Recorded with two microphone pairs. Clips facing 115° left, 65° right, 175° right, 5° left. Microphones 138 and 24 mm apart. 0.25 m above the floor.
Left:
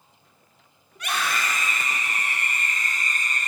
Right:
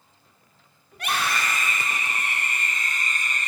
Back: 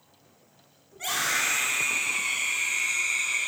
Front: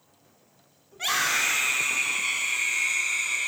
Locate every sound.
0.9 s a scream: 45° right, 3 m; by 3.5 s 85° right, 4.5 m